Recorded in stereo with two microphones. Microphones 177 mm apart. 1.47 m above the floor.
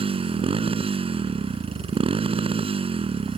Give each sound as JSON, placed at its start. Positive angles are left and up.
{"t": 0.0, "sound": "a motorcycle", "side_deg": -30}